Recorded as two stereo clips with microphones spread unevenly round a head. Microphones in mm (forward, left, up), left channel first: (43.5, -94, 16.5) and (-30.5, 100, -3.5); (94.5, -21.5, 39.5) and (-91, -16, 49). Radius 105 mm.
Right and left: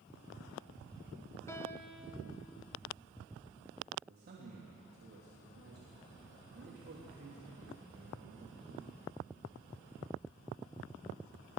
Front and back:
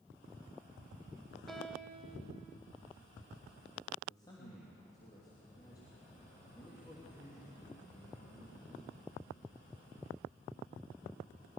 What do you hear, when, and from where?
1.5 s a piano: 100° right, 1.5 m
4.0 s a man speaking: 70° left, 3 m